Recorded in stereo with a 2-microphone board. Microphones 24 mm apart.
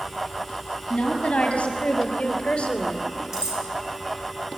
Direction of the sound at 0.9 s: 55° left (ahead or behind).